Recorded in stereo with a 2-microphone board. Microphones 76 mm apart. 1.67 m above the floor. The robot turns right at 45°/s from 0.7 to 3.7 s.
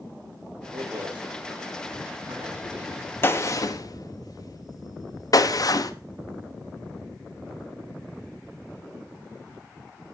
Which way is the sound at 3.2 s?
30° left (ahead or behind).